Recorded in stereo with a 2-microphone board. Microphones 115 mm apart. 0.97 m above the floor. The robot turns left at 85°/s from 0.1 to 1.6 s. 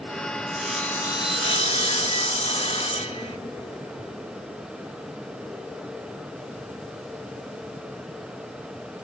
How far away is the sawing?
About 1.2 m.